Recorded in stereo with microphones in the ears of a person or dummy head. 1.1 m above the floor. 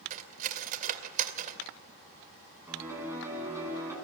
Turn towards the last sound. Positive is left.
turn(degrees=-10)  # may be behind; listen again after turning